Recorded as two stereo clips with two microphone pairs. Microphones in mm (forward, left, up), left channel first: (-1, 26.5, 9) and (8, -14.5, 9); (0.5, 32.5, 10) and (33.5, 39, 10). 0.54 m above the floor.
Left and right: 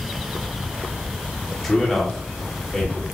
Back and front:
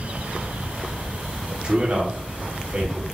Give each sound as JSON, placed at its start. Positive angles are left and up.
{"t": 1.6, "sound": "a man speaking", "azimuth_deg": 20, "distance_m": 1.6}